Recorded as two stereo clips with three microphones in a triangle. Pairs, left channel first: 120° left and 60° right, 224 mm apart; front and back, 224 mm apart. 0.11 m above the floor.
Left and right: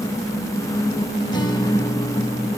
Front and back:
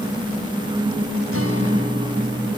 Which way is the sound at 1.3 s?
170° right.